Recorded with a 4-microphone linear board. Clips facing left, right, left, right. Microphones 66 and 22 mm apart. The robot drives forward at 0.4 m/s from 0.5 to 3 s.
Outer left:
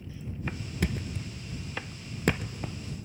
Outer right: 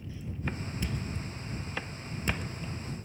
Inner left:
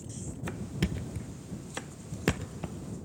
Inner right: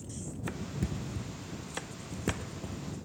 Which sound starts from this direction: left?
A thud, at 0.8 s.